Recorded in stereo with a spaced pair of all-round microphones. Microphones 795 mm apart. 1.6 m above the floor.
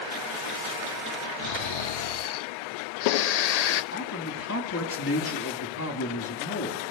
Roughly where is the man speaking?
Centre.